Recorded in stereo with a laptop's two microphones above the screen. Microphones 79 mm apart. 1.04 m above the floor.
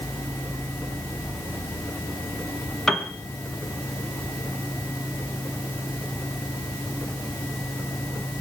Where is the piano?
5° left (ahead or behind), 3 m.